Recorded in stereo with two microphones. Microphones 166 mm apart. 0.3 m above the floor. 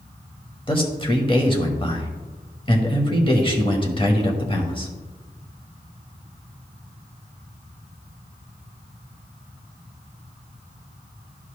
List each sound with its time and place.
0.7 s a man speaking: 30° left (ahead or behind), 1.1 m